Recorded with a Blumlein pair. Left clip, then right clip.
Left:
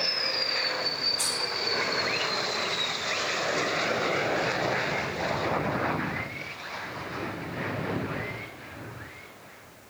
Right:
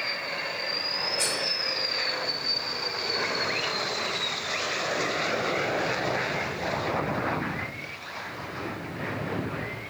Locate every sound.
1.2 s cutlery clinking: 25° left, 1.5 m